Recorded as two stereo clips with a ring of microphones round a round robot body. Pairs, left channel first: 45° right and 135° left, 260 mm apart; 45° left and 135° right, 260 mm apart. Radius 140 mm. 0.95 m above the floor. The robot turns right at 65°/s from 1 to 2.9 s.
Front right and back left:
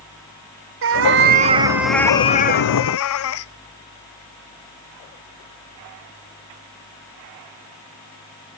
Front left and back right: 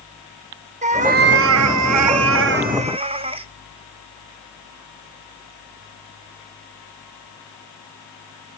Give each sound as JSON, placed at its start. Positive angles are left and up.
{"t": 0.8, "sound": "a cat meowing", "azimuth_deg": 165, "distance_m": 0.5}